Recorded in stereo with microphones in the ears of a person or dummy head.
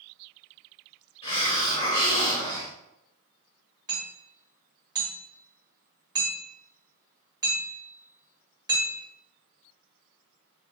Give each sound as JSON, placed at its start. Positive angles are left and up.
{"t": 1.2, "sound": "a hiss", "side_deg": 20, "distance_m": 1.1}
{"t": 3.9, "sound": "hammering", "side_deg": -25, "distance_m": 1.7}